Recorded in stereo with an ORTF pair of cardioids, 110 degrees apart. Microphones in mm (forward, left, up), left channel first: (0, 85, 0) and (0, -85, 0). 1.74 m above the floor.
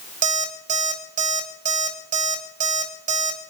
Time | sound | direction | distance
0.2 | an alarm clock | 50° right | 4.5 m